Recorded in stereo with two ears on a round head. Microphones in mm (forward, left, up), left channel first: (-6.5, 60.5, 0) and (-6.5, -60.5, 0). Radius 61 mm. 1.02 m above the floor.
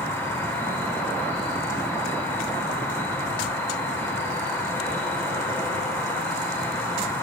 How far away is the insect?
About 5 m.